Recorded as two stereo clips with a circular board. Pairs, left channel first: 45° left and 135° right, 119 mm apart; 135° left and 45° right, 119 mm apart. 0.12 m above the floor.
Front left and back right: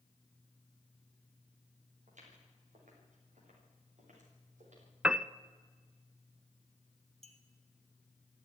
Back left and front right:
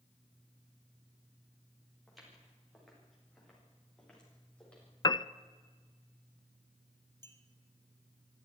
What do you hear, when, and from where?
2.1 s footsteps: 135° right, 8 m; by 4.9 s 145° right, 10 m
5.0 s a piano: 145° left, 0.5 m
7.2 s a clink: 160° right, 2.5 m